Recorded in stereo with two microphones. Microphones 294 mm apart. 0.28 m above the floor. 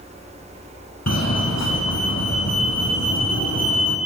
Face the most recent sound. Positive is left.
turn(degrees=60)  # may be behind; listen again after turning